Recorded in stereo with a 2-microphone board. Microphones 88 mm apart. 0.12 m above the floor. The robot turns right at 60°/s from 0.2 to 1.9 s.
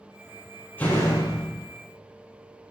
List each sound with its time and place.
0.8 s a door slam: 20° left, 2.5 m; by 1.6 s 70° left, 2.5 m